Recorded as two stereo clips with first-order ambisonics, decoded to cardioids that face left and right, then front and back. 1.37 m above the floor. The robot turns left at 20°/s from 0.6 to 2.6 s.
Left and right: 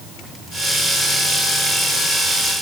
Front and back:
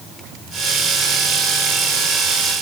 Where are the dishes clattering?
No dishes clattering in this recording.